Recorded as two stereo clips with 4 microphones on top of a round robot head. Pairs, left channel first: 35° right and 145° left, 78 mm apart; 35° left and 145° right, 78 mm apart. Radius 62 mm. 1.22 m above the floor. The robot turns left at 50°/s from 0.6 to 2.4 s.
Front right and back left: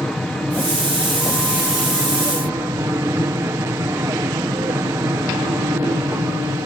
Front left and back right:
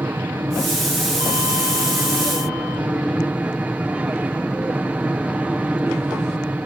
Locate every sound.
0.0 s an aircraft: 105° right; by 6.7 s 165° left